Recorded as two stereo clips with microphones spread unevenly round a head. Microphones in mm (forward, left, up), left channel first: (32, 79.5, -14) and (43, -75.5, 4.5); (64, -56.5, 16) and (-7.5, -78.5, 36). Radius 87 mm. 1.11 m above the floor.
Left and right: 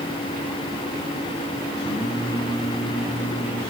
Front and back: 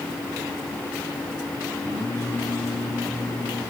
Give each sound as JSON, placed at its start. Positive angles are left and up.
{"t": 1.8, "sound": "singing", "azimuth_deg": 170, "distance_m": 4.0}